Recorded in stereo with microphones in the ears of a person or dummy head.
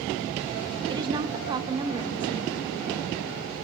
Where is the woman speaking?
25° right (ahead or behind), 1.1 m.